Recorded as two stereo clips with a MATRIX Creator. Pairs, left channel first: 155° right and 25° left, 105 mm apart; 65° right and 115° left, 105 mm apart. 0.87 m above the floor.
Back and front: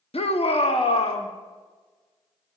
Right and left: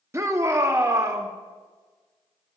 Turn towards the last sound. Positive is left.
turn(degrees=175)